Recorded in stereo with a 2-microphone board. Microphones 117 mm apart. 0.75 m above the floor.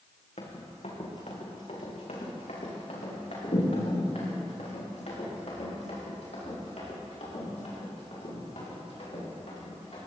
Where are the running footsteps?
70° left (ahead or behind), 3 m; by 10.0 s 65° left (ahead or behind), 9.5 m.